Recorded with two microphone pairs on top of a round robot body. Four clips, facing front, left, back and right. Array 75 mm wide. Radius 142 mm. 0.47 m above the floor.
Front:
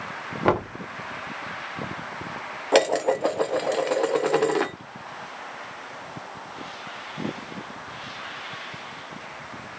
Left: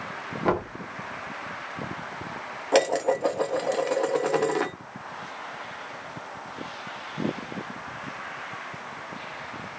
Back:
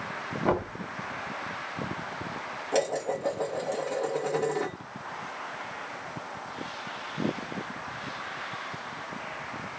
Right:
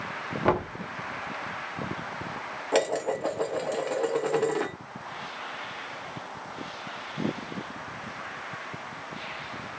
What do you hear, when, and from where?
0.5 s knocking: 10° right, 1.6 m
2.7 s dishes clattering: 20° left, 1.0 m